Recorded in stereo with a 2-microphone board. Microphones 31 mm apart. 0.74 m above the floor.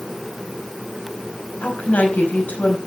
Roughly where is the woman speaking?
Left.